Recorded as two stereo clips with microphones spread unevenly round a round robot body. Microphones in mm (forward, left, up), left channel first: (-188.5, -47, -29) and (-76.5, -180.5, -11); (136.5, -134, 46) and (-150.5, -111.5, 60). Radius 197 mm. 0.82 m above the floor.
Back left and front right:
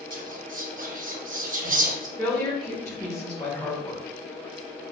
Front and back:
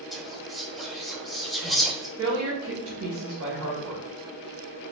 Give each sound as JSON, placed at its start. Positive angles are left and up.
{"t": 0.1, "sound": "whispering", "azimuth_deg": -95, "distance_m": 1.2}
{"t": 2.2, "sound": "a woman speaking", "azimuth_deg": -165, "distance_m": 1.4}